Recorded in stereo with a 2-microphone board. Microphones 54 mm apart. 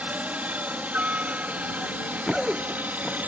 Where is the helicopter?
30° right (ahead or behind).